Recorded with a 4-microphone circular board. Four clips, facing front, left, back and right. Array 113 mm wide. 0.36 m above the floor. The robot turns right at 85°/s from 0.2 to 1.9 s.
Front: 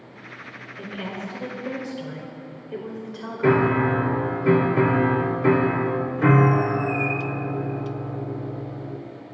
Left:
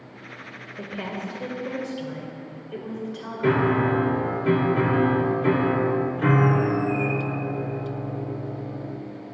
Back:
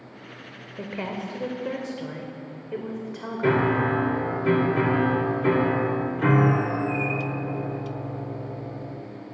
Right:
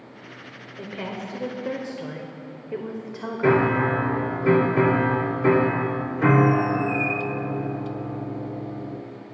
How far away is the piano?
About 0.7 m.